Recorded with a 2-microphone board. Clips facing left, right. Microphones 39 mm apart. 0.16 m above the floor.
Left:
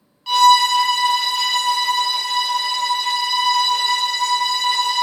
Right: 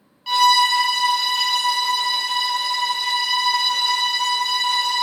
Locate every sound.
0.3 s a violin: 5° right (ahead or behind), 0.8 m